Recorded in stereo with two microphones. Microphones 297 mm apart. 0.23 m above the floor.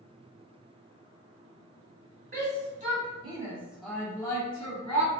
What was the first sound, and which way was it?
A shout, 30° right (ahead or behind).